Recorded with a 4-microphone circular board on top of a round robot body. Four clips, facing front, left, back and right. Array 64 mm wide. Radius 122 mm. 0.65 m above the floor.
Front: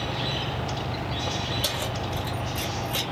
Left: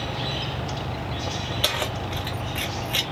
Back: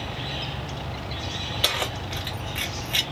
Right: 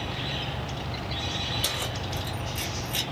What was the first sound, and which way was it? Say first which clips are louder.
Keys jangling: left 5 dB, back 2 dB; 140° left.